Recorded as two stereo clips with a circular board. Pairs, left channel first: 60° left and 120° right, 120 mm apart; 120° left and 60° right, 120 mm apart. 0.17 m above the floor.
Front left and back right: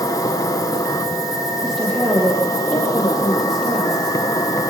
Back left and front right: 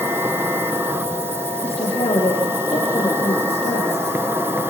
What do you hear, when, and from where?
0.0 s an insect: 5° left, 1.7 m
1.6 s a woman speaking: 150° left, 6 m